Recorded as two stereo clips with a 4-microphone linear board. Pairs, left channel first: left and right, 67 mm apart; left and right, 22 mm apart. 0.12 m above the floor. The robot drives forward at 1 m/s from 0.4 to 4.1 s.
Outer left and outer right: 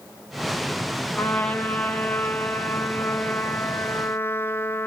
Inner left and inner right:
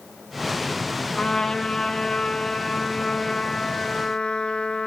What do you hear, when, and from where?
1.2 s a trumpet: 15° left (ahead or behind), 4 m; by 4.9 s 35° left (ahead or behind), 2.0 m